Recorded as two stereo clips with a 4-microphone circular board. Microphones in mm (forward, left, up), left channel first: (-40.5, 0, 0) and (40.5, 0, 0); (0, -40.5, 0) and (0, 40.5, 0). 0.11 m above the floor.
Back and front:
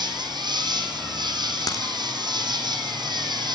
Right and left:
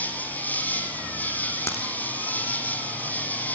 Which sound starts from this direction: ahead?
An insect, at 0.0 s.